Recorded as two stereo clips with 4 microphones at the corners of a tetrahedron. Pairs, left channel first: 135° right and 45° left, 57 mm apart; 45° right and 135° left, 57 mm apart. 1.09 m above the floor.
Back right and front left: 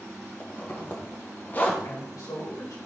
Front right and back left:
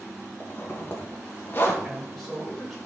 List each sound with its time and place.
0.4 s a zipper: 85° right, 1.4 m
1.8 s a man speaking: 135° right, 4 m